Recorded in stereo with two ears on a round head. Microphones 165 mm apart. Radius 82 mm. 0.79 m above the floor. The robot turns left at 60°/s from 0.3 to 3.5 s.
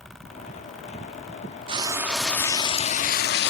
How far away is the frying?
About 1.2 m.